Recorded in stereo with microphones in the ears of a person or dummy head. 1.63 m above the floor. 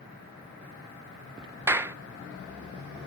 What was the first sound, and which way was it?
A clap, 10° right (ahead or behind).